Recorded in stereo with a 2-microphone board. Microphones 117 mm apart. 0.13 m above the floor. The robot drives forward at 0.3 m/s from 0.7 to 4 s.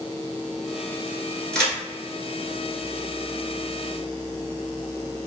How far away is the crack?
About 1.0 m.